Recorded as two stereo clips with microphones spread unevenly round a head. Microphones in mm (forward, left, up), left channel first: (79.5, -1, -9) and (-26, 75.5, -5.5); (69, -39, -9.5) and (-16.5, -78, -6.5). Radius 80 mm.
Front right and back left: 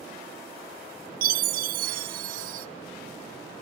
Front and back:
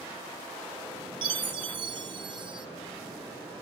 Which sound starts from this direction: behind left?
A chime, at 1.2 s.